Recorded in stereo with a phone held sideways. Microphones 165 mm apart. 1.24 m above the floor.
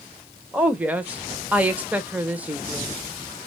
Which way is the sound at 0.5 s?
10° right (ahead or behind).